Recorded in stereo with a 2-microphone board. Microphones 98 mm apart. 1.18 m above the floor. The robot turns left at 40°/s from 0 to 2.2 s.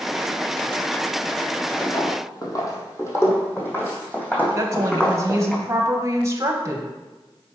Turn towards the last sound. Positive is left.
turn(degrees=-30)  # may be behind; listen again after turning